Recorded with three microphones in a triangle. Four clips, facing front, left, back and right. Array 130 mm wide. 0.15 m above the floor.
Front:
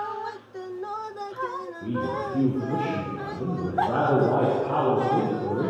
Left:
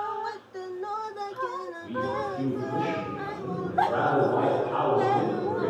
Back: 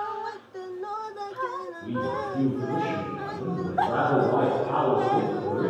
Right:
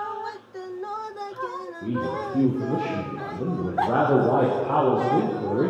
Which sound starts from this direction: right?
A man speaking, at 1.8 s.